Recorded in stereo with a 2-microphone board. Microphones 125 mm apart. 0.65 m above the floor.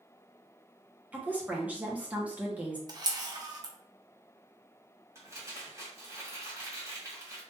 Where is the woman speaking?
10° right (ahead or behind), 0.9 m.